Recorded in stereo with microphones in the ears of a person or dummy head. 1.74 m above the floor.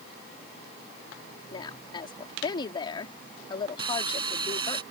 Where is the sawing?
30° right (ahead or behind).